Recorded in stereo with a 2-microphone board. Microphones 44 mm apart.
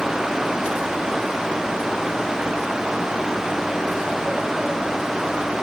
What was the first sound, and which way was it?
Only background noise.